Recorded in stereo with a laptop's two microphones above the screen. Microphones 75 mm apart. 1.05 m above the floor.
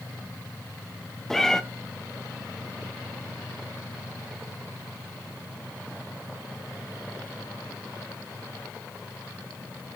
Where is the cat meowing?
5° left (ahead or behind), 0.6 m.